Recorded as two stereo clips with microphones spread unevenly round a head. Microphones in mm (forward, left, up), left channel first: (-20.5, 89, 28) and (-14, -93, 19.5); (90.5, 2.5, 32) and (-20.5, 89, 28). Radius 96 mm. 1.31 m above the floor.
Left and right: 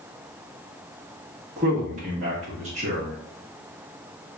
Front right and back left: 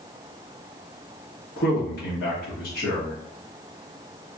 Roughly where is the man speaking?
Ahead right.